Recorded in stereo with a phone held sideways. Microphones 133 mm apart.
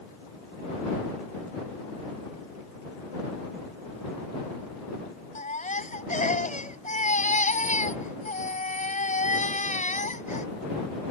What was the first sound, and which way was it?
A baby crying, 80° left.